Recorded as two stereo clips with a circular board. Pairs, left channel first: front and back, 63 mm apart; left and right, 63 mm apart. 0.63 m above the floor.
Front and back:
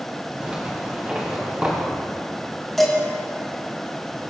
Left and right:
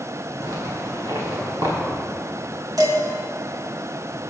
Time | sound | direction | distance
0.4 | a zipper | 110° right | 3.5 m
2.8 | dishes clattering | 90° right | 3.5 m